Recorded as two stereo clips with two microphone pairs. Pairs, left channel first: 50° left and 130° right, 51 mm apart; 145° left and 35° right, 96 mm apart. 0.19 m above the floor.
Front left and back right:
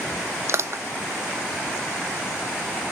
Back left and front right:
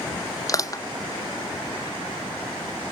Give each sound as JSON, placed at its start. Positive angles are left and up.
{"t": 0.5, "sound": "crushing", "azimuth_deg": -160}